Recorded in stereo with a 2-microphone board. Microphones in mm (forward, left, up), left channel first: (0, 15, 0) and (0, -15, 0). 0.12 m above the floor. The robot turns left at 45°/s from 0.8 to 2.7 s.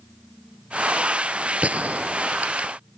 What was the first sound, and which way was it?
A gunshot, 50° right (ahead or behind).